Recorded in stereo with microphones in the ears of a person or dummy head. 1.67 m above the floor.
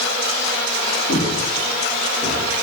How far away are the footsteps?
About 5 m.